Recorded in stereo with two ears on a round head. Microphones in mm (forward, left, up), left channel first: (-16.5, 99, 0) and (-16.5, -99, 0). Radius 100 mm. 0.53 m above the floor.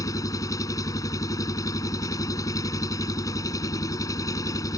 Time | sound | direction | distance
0.0 | an engine running | 15° left (ahead or behind) | ?